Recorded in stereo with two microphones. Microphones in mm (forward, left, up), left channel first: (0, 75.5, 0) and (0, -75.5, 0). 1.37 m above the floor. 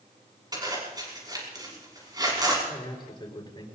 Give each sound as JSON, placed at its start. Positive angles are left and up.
{"t": 0.5, "sound": "a zipper", "side_deg": -25, "distance_m": 6.0}
{"t": 2.7, "sound": "a man speaking", "side_deg": 30, "distance_m": 4.5}